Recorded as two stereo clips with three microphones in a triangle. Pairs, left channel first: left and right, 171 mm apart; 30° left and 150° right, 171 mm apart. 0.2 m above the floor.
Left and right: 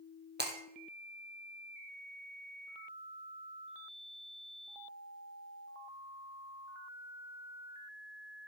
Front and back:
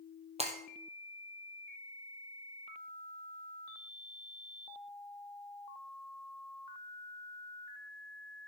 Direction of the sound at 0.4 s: 100° right.